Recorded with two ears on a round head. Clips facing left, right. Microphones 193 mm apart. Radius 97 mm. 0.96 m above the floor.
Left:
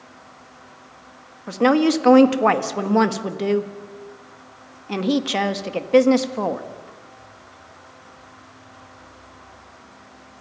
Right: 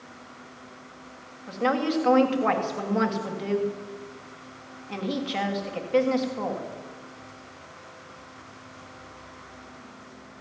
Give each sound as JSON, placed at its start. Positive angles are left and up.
{"t": 1.5, "sound": "a woman speaking", "side_deg": 65, "distance_m": 1.6}